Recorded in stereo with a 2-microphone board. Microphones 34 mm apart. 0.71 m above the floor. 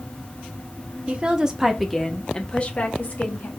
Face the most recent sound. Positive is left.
turn(degrees=55)  # may be behind; listen again after turning